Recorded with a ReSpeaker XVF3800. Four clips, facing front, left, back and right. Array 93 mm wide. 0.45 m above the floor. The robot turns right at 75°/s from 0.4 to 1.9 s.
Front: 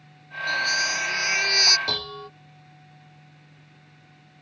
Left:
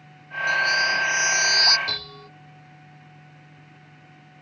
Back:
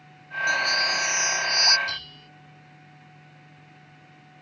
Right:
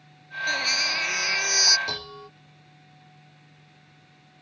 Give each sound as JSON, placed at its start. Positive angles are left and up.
{"t": 0.5, "sound": "a baby crying", "azimuth_deg": -105}
{"t": 1.9, "sound": "dishes clattering", "azimuth_deg": -15}